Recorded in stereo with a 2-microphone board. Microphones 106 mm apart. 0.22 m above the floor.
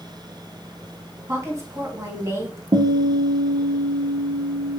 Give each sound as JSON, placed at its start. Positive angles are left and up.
{"t": 1.3, "sound": "a woman speaking", "side_deg": -30, "distance_m": 2.0}
{"t": 2.7, "sound": "a guitar", "side_deg": -70, "distance_m": 1.8}